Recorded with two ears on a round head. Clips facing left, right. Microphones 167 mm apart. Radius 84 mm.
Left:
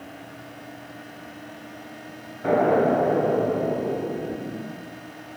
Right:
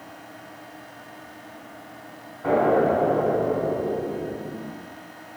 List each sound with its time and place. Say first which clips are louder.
2.4 s an explosion: even; 30° left (ahead or behind), 1.3 m